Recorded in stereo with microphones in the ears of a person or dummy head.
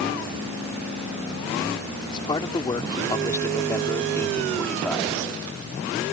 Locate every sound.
2.1 s a man speaking: 25° left (ahead or behind); by 5.1 s centre (ahead or behind)